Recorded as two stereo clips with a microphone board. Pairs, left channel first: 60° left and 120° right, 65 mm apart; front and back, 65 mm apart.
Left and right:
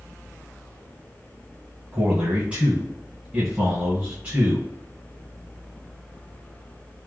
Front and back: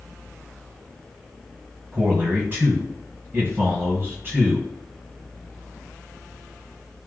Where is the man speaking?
165° right, 1.7 m.